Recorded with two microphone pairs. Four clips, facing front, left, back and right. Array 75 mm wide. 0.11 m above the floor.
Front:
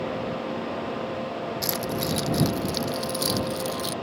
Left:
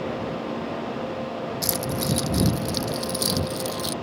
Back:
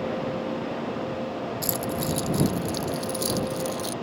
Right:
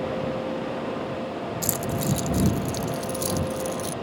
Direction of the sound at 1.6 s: 5° left.